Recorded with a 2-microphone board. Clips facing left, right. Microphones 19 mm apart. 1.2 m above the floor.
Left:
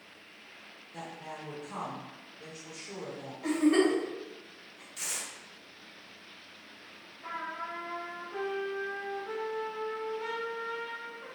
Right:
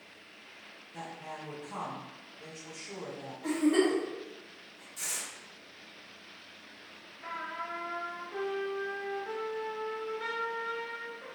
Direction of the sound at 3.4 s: 45° left (ahead or behind).